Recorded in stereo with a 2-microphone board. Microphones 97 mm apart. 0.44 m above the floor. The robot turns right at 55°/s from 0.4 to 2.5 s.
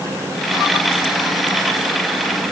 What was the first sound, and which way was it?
Only background noise.